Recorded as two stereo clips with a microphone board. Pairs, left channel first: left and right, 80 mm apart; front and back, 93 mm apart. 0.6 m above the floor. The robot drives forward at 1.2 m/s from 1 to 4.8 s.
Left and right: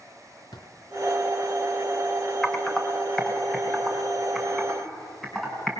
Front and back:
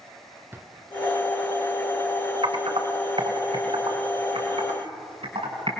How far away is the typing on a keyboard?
About 1.7 m.